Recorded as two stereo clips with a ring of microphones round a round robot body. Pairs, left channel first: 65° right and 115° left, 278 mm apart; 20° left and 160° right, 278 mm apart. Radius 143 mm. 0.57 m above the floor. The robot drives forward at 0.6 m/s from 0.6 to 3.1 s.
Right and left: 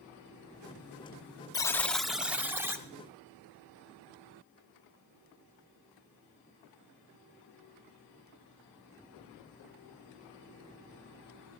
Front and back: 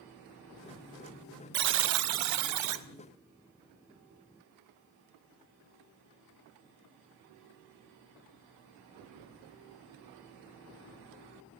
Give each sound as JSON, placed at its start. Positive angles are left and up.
{"t": 1.5, "sound": "a buzzer", "azimuth_deg": -135, "distance_m": 0.5}